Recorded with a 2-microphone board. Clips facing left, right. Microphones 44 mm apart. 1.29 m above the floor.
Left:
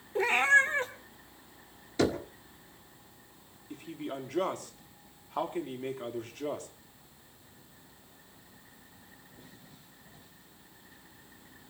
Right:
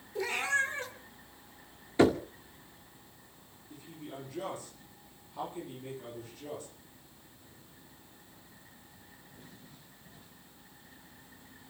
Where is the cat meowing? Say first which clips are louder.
Left 7 dB; 40° left (ahead or behind), 1.9 m.